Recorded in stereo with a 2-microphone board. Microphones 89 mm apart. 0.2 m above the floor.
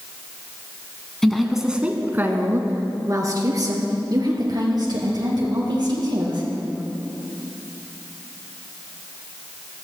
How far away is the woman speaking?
About 1.4 m.